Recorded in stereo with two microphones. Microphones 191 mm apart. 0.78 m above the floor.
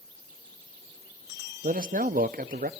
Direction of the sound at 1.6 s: 50° right (ahead or behind).